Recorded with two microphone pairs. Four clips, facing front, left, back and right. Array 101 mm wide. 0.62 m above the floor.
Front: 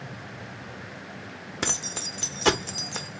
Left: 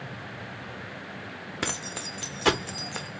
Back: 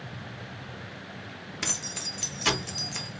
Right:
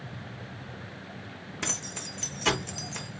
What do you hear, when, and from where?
1.6 s keys jangling: 35° left, 0.6 m